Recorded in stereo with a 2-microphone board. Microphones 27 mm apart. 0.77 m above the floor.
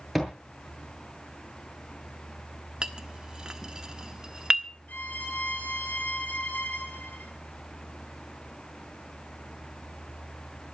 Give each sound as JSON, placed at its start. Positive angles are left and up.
{"t": 0.1, "sound": "a thud", "side_deg": 0, "distance_m": 7.5}
{"t": 2.8, "sound": "a clink", "side_deg": -25, "distance_m": 1.3}
{"t": 4.9, "sound": "a violin", "side_deg": 75, "distance_m": 3.0}